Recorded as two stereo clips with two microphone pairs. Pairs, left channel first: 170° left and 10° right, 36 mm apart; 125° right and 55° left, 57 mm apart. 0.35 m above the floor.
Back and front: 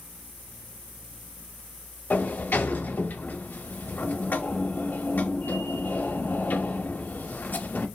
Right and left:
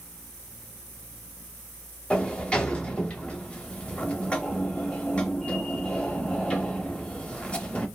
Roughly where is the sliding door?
Behind.